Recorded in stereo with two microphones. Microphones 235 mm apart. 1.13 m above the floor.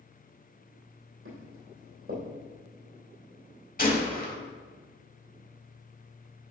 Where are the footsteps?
70° right (ahead or behind), 3 m.